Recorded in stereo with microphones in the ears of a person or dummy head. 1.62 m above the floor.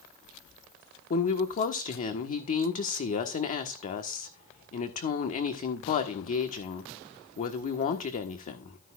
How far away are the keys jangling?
I don't hear keys jangling.